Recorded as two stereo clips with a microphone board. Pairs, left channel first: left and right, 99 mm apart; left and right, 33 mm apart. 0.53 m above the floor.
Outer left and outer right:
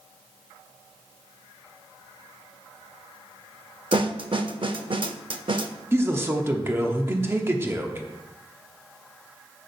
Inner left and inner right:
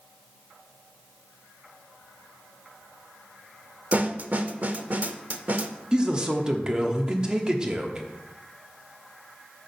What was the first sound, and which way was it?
A snare drum, 55° right (ahead or behind).